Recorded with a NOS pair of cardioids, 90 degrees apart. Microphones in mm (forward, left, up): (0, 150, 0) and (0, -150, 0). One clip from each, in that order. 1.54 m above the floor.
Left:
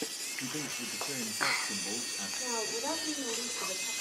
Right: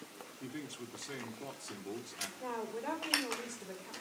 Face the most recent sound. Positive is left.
turn(degrees=55)